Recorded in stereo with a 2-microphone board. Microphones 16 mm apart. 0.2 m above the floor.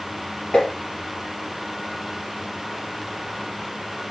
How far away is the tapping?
About 4.5 m.